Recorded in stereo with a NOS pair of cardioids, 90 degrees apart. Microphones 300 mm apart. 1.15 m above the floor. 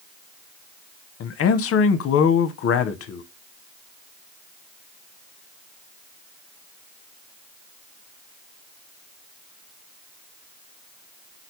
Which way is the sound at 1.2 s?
50° left.